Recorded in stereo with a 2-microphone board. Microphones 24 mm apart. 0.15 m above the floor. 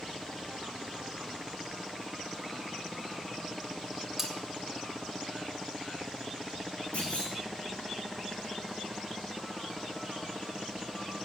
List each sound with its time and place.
4.2 s cutlery clinking: 15° right (ahead or behind), 0.8 m
6.9 s a clunk: 65° left (ahead or behind), 3.5 m